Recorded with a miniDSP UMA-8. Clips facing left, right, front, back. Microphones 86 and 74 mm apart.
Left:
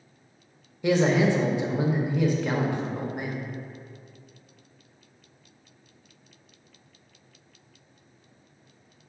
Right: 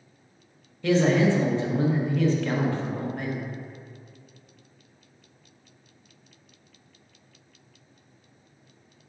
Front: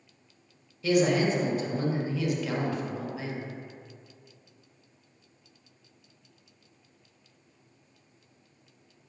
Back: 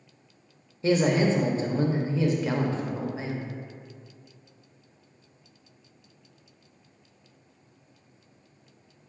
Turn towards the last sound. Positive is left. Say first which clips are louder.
# right 1 dB, back 1 dB
turn(degrees=150)